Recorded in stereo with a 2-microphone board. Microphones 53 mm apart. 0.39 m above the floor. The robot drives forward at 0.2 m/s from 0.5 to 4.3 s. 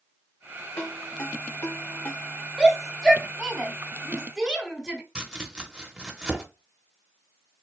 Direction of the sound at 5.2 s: 15° right (ahead or behind).